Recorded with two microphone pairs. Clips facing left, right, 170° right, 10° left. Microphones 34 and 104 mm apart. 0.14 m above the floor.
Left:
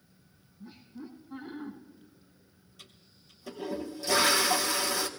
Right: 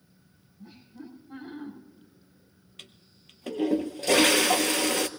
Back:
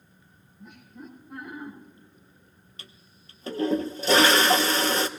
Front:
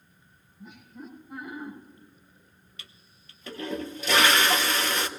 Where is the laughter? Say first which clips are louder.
Even, front 1 dB; 75° right, 6.5 m.